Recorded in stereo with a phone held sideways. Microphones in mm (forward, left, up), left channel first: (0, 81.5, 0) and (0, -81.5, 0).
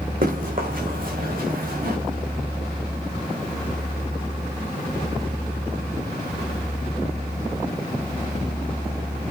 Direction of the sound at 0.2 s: 60° right (ahead or behind).